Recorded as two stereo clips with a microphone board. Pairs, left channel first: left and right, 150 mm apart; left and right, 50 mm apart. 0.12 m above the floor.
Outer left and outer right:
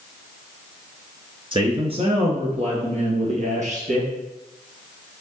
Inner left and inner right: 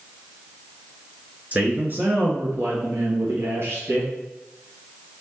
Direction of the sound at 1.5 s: 35° right (ahead or behind).